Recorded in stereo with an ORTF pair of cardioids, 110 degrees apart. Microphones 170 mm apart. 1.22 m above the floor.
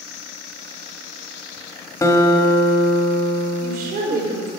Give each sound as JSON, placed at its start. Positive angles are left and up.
{"t": 2.0, "sound": "a guitar", "azimuth_deg": 20, "distance_m": 1.8}
{"t": 3.6, "sound": "a woman speaking", "azimuth_deg": -65, "distance_m": 4.0}